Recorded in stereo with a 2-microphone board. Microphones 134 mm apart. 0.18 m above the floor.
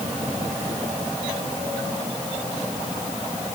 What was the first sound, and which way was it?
Only background noise.